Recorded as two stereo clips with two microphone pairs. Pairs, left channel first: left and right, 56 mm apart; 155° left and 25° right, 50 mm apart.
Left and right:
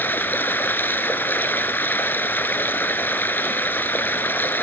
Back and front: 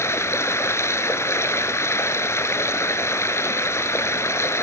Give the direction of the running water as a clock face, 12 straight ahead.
7 o'clock.